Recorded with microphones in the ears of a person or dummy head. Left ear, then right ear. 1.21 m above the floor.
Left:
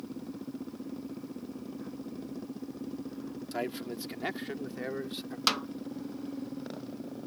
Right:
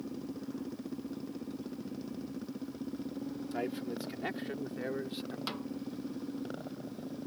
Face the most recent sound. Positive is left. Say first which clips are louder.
# left 14 dB
turn(degrees=55)  # may be behind; listen again after turning